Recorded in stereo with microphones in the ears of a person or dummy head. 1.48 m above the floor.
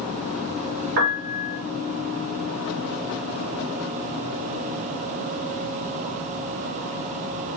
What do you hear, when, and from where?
1.0 s a piano: 55° right (ahead or behind), 1.1 m